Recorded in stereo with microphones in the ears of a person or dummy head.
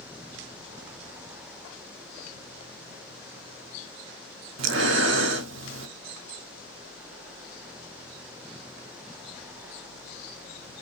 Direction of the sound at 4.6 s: 65° right (ahead or behind).